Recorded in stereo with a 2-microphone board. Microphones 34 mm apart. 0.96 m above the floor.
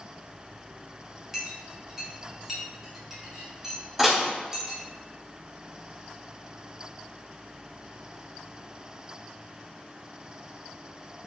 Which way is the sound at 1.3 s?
10° right (ahead or behind).